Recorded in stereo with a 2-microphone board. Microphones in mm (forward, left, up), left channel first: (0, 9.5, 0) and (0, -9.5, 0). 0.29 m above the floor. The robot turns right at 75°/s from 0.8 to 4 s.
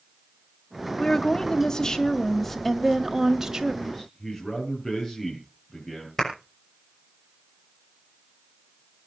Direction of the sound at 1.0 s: 35° left.